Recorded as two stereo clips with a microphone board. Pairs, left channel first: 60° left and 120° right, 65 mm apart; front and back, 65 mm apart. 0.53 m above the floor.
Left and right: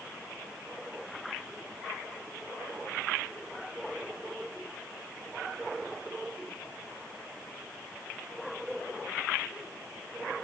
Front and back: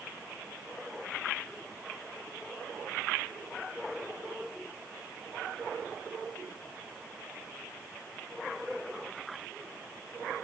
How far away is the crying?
No crying in this recording.